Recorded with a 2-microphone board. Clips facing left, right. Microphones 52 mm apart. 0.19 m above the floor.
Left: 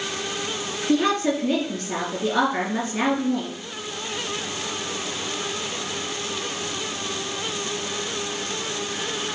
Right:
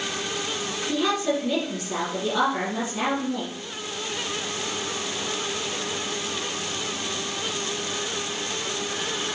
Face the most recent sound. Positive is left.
turn(degrees=40)  # may be behind; listen again after turning